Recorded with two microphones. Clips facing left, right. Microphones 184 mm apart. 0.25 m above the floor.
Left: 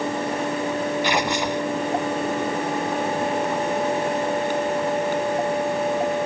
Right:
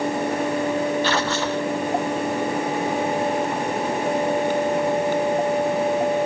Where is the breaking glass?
I don't hear breaking glass.